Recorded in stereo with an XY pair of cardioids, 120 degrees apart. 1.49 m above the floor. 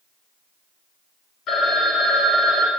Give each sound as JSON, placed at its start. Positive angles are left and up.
{"t": 1.5, "sound": "a phone ringing", "azimuth_deg": 55, "distance_m": 1.2}